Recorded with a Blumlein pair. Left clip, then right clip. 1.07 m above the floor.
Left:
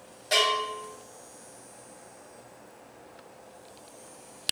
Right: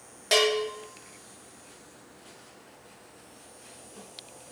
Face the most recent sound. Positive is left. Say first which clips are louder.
# right 1 dB
turn(degrees=-65)